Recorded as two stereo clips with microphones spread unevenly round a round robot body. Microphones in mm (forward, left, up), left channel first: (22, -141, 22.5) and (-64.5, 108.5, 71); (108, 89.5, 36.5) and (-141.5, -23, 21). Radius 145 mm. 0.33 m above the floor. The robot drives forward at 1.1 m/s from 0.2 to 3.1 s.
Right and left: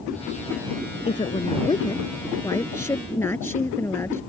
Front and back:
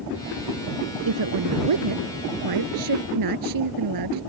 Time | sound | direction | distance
1.1 | a woman speaking | 140° right | ?